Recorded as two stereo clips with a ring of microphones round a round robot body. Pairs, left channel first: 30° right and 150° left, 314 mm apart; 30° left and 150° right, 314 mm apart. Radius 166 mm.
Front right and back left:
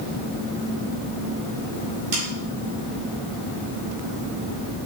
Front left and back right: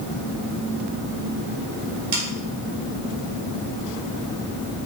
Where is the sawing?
160° right, 2.5 m.